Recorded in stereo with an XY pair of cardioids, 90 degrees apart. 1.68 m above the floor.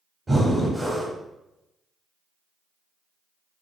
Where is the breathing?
20° right, 0.8 m.